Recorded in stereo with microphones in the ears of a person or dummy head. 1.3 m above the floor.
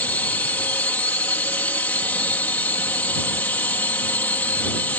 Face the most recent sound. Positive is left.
turn(degrees=10)  # may be behind; listen again after turning